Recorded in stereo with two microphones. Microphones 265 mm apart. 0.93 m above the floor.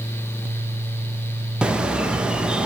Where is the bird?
5° right (ahead or behind), 0.6 m.